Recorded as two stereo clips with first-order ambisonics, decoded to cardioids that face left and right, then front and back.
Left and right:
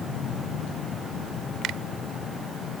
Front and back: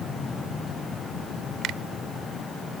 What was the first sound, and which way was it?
A finger snap, 135° right.